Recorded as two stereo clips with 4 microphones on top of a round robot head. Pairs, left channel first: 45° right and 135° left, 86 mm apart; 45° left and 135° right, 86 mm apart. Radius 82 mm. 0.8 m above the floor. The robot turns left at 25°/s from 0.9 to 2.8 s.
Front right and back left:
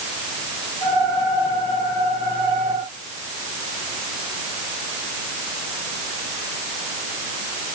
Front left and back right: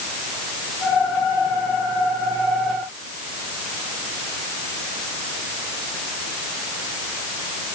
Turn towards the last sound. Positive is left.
No sound to turn to.